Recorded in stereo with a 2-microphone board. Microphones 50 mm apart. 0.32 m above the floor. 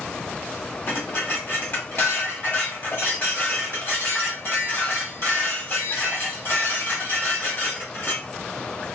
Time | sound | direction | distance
0.9 | dishes clattering | 50° left (ahead or behind) | 1.3 m